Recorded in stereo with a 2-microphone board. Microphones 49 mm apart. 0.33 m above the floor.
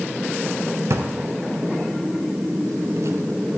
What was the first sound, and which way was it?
A drawer, 70° right (ahead or behind).